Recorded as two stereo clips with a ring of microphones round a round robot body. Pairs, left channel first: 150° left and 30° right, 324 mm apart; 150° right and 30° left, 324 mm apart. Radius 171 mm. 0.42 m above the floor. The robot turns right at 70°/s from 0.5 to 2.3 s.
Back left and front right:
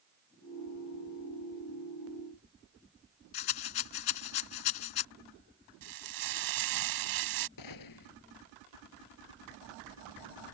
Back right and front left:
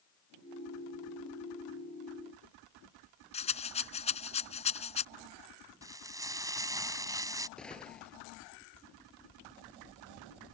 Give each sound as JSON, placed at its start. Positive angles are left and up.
{"t": 3.3, "sound": "a rattle", "azimuth_deg": 140}
{"t": 5.8, "sound": "frying", "azimuth_deg": -50}
{"t": 7.6, "sound": "a gunshot", "azimuth_deg": 125}